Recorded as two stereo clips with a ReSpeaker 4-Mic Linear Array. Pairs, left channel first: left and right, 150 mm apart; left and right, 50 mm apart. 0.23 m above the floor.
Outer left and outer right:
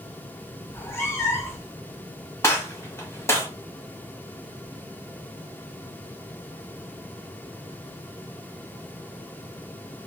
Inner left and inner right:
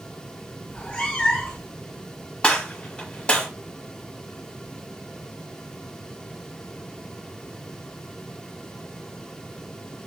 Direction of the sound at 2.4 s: 20° left (ahead or behind).